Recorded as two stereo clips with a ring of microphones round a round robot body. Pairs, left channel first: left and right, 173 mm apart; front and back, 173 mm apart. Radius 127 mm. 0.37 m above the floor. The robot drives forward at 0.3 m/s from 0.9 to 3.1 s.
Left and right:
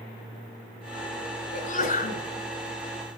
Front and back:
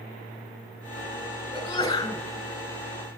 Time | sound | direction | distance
1.5 | a sneeze | 60° left | 2 m